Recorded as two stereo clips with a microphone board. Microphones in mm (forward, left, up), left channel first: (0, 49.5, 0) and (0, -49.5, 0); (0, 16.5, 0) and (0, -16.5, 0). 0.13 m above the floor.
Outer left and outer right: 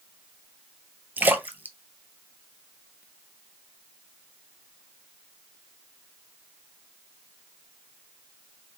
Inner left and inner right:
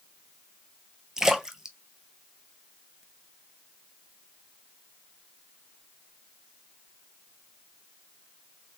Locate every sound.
1.2 s a splash: 20° right (ahead or behind), 0.5 m